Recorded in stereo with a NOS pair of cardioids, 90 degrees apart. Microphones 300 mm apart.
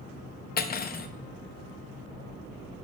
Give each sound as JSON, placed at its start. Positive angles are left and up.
{"t": 0.6, "sound": "cutlery clinking", "azimuth_deg": 30, "distance_m": 0.7}